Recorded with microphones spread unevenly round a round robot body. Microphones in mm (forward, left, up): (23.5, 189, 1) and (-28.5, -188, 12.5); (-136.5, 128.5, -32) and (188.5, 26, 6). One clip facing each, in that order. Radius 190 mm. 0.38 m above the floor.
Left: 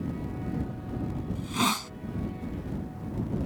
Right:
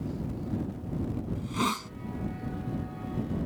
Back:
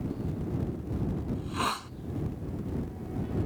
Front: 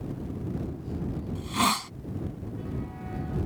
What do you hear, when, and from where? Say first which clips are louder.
1.4 s a hiss: left 1 dB, front 4 dB; 10° left